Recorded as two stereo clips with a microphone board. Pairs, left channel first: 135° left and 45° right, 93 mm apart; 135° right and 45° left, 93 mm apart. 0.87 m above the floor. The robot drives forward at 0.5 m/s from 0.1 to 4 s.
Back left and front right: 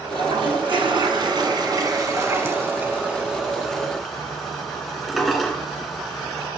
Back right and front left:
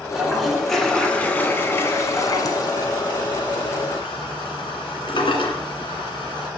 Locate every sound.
0.1 s a toilet flushing: 40° right, 1.5 m; by 6.5 s 135° right, 1.5 m